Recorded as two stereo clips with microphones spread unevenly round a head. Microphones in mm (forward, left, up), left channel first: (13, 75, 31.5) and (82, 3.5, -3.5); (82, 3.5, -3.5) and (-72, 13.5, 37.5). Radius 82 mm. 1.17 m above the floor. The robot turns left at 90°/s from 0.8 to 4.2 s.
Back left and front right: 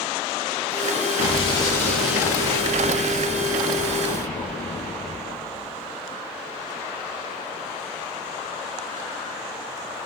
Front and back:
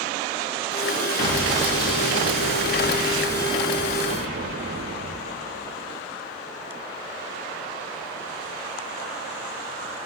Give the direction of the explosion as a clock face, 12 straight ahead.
8 o'clock.